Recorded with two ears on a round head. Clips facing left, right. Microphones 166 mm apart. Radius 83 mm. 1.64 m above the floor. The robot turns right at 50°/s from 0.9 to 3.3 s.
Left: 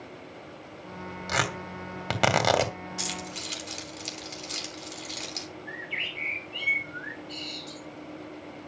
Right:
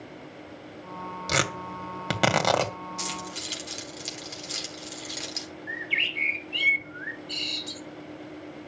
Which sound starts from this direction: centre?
Keys jangling, at 3.0 s.